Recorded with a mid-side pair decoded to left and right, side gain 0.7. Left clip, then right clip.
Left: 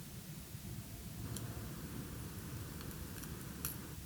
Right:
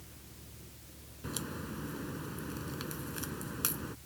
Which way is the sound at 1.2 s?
45° right.